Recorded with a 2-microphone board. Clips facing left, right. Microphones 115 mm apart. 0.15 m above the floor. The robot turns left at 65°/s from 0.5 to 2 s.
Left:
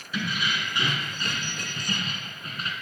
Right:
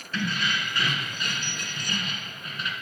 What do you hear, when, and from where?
0.1 s keys jangling: 165° left, 1.0 m; by 2.7 s 65° left, 1.0 m